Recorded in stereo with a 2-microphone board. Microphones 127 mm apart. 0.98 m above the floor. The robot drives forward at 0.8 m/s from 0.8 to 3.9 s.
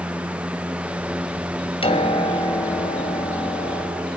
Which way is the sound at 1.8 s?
50° left (ahead or behind).